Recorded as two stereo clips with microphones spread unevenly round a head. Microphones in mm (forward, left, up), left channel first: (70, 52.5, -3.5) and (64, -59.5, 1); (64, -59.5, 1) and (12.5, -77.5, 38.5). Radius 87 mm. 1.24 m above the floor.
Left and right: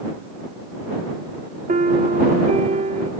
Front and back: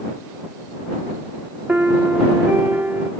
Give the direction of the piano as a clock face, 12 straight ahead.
4 o'clock.